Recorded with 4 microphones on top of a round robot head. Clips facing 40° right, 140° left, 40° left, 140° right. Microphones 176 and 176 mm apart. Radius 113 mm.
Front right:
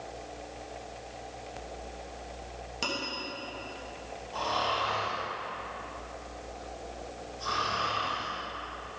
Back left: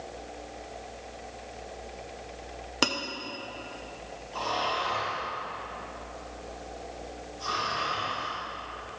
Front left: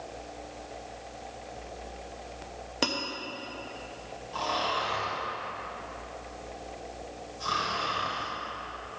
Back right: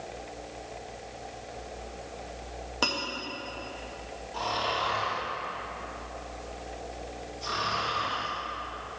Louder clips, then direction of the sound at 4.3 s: Back left 1 dB, even; 40° left.